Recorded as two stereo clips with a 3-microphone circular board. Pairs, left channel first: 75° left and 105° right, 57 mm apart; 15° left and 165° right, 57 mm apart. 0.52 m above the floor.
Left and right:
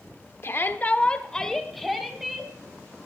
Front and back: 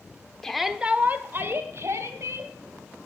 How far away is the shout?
About 1.1 m.